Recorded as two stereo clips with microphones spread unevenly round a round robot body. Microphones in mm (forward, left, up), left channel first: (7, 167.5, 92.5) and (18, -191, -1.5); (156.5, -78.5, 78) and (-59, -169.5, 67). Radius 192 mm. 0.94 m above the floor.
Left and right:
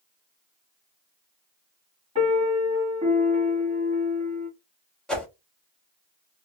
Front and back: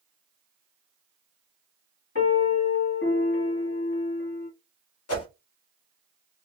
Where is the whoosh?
5° left, 1.3 m.